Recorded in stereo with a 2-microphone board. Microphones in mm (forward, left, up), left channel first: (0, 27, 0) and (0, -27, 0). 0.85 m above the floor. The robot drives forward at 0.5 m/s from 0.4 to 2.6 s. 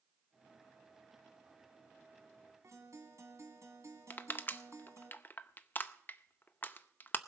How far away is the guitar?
About 2 m.